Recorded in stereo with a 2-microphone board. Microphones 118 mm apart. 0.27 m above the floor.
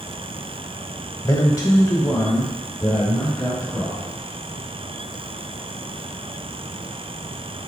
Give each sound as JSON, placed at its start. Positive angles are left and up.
{"t": 1.2, "sound": "a man speaking", "side_deg": 30, "distance_m": 1.3}